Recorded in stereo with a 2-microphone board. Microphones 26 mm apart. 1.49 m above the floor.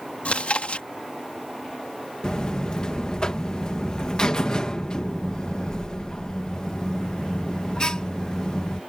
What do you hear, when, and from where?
0.2 s chewing: 55° left (ahead or behind)
2.2 s a buzzer: 35° left (ahead or behind)